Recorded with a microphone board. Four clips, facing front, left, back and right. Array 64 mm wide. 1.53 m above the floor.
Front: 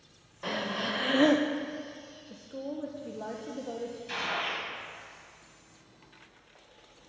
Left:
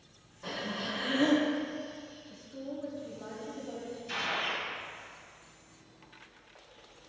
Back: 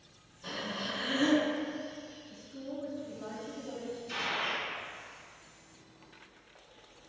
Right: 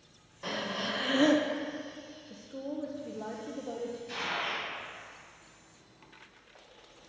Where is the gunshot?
20° left, 3.5 m.